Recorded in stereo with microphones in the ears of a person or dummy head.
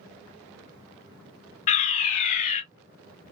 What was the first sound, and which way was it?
A fire alarm, 40° left (ahead or behind).